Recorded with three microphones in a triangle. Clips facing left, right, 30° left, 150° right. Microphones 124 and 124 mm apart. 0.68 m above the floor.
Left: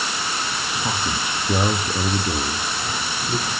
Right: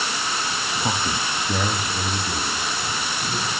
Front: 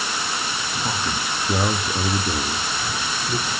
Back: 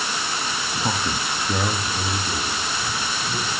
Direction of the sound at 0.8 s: 140° right.